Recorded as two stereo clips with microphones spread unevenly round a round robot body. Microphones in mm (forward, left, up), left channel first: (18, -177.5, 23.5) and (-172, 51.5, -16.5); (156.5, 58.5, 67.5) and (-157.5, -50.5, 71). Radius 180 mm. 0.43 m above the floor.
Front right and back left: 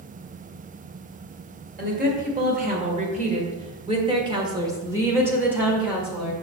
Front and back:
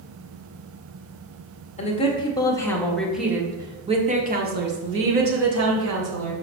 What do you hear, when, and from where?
1.8 s a woman speaking: 80° left, 1.9 m; by 6.3 s 150° right, 2 m